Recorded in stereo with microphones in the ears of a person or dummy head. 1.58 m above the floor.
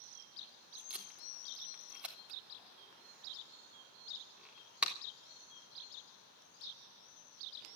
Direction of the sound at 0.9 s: 5° right (ahead or behind).